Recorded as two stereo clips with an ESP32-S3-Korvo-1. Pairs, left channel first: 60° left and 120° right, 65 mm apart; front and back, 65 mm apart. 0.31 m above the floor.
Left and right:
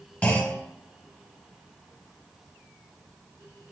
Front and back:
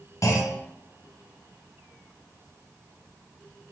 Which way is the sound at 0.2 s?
5° right.